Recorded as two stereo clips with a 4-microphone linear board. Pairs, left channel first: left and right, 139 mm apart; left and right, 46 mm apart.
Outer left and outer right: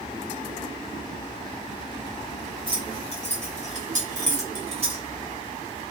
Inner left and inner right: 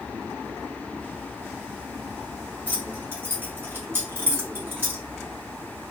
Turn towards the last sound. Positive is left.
turn(degrees=-45)  # may be behind; listen again after turning